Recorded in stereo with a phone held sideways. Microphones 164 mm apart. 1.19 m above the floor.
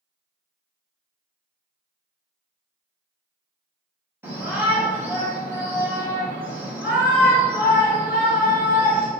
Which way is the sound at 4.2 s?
15° right (ahead or behind).